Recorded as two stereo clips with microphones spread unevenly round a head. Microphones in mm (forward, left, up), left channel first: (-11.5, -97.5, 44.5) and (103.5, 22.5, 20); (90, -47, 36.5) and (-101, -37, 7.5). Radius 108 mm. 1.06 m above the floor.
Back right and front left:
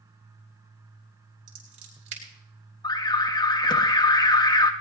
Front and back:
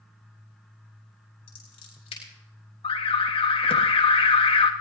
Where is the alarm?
65° right, 1.3 m.